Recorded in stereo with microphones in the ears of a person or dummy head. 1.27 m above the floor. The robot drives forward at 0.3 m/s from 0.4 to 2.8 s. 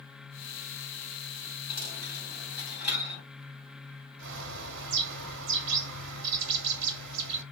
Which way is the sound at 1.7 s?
10° right (ahead or behind).